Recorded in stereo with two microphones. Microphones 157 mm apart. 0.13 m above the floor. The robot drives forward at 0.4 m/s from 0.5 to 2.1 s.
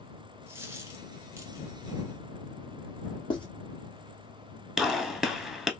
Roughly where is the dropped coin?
Centre.